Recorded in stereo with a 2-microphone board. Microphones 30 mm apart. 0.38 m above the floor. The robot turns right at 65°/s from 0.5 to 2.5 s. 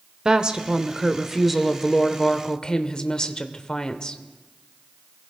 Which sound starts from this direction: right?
A woman speaking, at 0.2 s.